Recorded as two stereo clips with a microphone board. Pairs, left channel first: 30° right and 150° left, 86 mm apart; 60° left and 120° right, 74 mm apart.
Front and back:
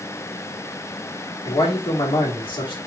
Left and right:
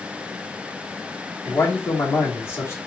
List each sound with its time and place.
1.4 s a man speaking: straight ahead, 1.9 m